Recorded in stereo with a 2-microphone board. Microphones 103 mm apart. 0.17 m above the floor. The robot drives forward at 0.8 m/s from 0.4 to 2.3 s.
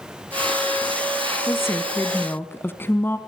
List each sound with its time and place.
1.5 s a woman speaking: 25° left (ahead or behind), 1.3 m; by 3.2 s 20° left (ahead or behind), 1.5 m